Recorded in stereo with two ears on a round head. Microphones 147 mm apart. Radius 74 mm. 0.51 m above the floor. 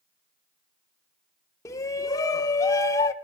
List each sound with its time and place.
1.6 s a shout: 20° left (ahead or behind), 0.7 m